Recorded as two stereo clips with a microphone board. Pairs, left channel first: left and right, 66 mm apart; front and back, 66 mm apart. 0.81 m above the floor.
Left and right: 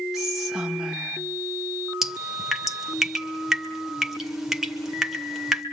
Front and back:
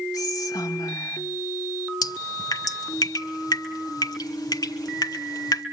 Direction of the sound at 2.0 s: 5° right.